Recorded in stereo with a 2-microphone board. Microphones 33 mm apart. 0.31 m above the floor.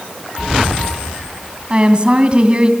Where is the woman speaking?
30° right (ahead or behind), 2.5 m.